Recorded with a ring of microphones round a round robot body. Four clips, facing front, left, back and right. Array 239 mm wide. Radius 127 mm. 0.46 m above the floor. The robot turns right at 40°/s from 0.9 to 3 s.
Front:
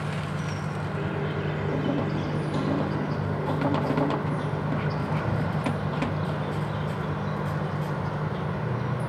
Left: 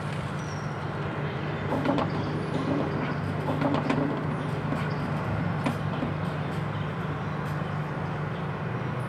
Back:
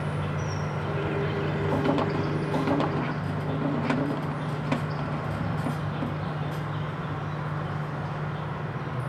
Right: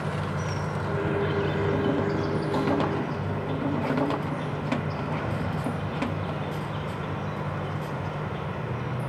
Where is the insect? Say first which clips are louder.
Right 3 dB, back 1 dB; 115° right, 2.5 m; by 9.1 s 30° right, 2.5 m.